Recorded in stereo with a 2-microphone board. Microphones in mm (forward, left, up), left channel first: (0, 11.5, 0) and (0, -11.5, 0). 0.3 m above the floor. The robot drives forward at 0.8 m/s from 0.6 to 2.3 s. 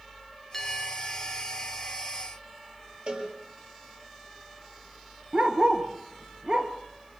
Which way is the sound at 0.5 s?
10° left (ahead or behind).